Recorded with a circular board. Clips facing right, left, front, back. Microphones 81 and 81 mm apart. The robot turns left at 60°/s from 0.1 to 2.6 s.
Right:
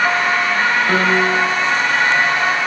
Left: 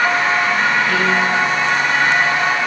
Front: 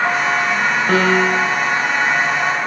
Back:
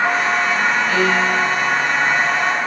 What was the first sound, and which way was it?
A piano, 40° right.